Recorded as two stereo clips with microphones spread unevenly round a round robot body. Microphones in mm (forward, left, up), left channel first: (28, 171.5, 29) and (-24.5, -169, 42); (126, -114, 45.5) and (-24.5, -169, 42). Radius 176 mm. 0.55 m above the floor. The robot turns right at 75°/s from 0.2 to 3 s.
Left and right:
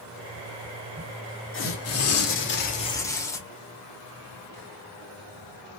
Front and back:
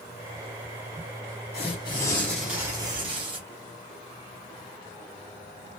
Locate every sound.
1.5 s tearing paper: 45° left, 1.0 m; by 3.4 s 155° left, 1.0 m